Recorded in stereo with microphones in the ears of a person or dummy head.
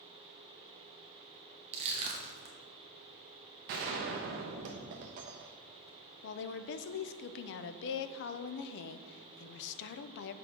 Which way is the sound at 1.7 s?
35° right (ahead or behind).